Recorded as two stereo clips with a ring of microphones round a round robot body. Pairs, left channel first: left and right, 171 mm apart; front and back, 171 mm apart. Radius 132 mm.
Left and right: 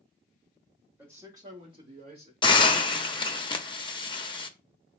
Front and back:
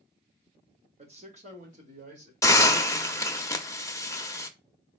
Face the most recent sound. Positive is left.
turn(degrees=60)